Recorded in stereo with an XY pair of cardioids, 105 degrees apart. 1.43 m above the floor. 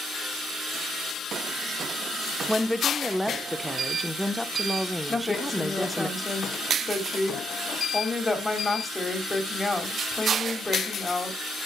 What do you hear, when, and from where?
2.5 s a woman speaking: straight ahead, 1.1 m
5.1 s a woman speaking: 15° left, 3.5 m